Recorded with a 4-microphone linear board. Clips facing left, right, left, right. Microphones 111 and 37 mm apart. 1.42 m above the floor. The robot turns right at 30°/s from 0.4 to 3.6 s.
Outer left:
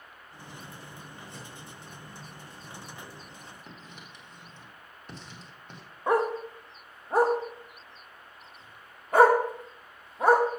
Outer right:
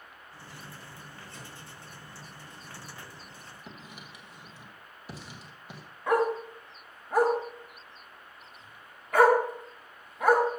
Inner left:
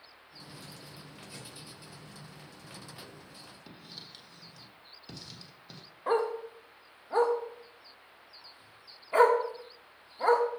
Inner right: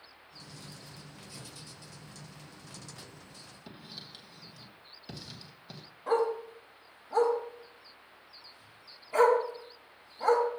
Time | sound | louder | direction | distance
1.3 | a thud | outer left 1 dB, inner left 1 dB | 60° left (ahead or behind) | 4 m
3.7 | writing | outer right 1 dB, inner right 3 dB | 5° right (ahead or behind) | 1.3 m
6.1 | a dog barking | even, even | 30° left (ahead or behind) | 1.2 m